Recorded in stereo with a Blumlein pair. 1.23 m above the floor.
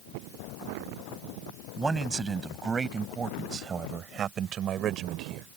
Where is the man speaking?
15° right; by 5.5 s 35° right.